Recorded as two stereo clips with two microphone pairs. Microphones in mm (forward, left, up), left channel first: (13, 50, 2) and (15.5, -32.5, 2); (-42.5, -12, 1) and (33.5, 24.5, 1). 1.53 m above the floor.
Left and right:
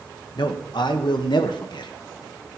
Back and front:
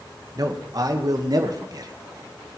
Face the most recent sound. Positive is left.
turn(degrees=65)